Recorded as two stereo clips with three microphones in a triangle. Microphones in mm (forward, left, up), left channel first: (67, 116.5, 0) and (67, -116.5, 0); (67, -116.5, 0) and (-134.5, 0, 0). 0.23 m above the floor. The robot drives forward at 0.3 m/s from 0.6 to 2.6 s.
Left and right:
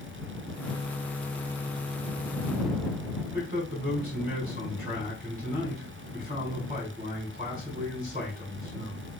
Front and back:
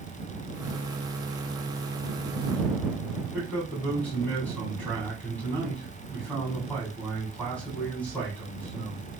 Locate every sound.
3.2 s a man speaking: 110° right, 2 m